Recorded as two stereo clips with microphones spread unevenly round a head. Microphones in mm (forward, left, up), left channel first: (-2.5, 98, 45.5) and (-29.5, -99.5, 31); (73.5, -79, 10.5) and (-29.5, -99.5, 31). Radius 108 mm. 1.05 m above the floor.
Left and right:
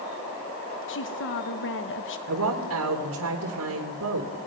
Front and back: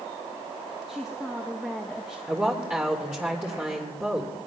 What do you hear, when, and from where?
0.9 s a woman speaking: 100° left, 1.3 m
2.3 s a woman speaking: 90° right, 3 m